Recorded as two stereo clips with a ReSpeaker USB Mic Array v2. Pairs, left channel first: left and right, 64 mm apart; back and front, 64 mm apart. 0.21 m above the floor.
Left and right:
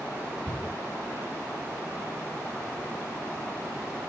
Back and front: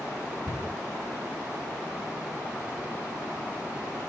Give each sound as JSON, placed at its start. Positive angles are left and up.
{"t": 0.5, "sound": "a cupboard door", "azimuth_deg": 100, "distance_m": 2.0}